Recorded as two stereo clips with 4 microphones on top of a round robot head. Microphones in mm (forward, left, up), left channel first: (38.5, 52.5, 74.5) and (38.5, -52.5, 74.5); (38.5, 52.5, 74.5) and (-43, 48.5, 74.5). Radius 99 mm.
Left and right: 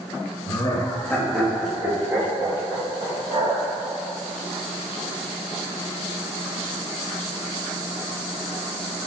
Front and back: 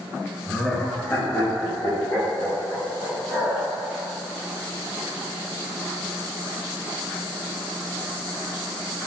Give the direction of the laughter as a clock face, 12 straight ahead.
9 o'clock.